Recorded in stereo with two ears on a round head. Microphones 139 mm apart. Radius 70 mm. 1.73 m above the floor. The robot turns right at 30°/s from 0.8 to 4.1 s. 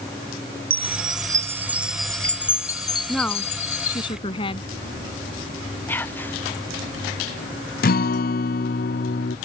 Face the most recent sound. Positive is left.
turn(degrees=60)  # may be behind; listen again after turning